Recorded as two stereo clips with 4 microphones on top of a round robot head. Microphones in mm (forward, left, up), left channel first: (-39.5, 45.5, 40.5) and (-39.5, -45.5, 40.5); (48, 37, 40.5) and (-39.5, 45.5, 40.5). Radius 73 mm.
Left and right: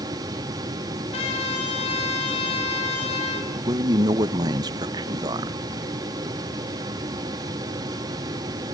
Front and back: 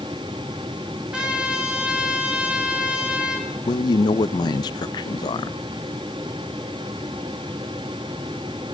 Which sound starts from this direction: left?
A trumpet, at 1.1 s.